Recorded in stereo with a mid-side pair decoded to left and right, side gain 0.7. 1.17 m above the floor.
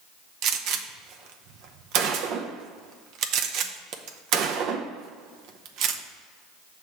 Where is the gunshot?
60° right, 0.7 m.